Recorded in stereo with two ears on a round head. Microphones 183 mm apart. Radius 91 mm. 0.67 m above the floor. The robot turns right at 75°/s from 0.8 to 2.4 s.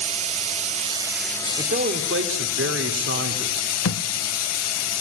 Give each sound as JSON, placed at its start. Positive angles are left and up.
{"t": 0.0, "sound": "running water", "azimuth_deg": -30, "distance_m": 3.5}
{"t": 1.6, "sound": "a man speaking", "azimuth_deg": -145, "distance_m": 2.5}
{"t": 3.9, "sound": "a thud", "side_deg": 70, "distance_m": 0.7}